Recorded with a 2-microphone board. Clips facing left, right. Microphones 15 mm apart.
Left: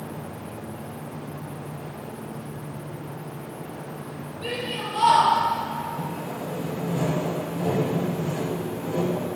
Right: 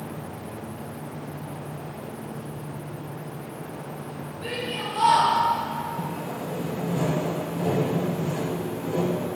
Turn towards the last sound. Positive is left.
turn(degrees=-40)  # may be behind; listen again after turning